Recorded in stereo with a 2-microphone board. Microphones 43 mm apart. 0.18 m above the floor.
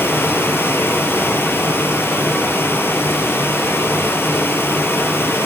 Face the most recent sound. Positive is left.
turn(degrees=75)  # may be behind; listen again after turning